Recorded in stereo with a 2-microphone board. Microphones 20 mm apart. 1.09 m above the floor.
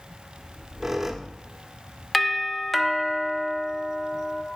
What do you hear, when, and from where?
0.4 s a squeak: 20° right (ahead or behind), 0.9 m
2.1 s a doorbell: centre (ahead or behind), 0.9 m